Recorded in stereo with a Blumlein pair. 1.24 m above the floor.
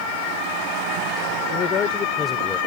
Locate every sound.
1.5 s a man speaking: 30° left; by 2.6 s 10° left